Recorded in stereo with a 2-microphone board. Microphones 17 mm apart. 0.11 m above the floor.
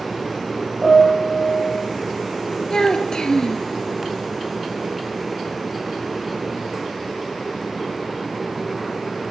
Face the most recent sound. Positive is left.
turn(degrees=50)  # may be behind; listen again after turning